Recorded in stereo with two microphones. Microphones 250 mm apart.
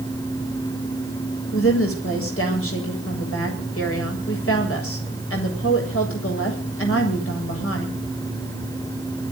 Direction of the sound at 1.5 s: 60° left (ahead or behind).